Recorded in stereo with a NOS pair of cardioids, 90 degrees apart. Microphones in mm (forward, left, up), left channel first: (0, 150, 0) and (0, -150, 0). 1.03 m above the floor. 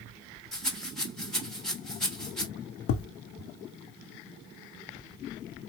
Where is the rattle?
Straight ahead, 1.1 m.